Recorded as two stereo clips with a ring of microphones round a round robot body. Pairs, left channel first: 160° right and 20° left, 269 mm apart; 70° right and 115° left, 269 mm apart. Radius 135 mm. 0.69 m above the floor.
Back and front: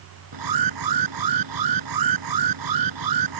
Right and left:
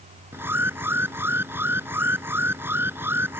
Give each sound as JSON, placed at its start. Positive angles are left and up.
{"t": 0.3, "sound": "an alarm", "azimuth_deg": 30}